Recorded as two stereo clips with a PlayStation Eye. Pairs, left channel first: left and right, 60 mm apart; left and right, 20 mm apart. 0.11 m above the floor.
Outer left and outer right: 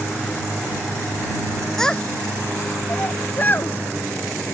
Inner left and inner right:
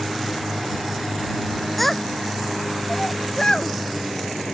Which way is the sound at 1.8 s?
10° left (ahead or behind).